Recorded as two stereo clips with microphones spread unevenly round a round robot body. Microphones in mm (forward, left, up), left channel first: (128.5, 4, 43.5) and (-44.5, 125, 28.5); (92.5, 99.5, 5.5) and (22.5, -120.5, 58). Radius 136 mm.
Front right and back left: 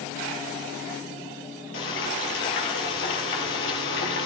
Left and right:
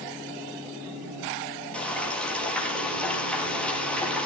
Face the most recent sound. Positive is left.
turn(degrees=-15)